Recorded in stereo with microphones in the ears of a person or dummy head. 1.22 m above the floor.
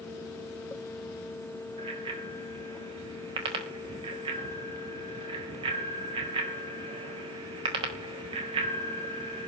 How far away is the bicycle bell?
About 4.5 m.